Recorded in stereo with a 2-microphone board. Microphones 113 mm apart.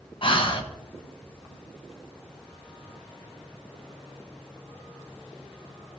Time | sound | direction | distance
0.2 | breathing | 50° left (ahead or behind) | 1.1 m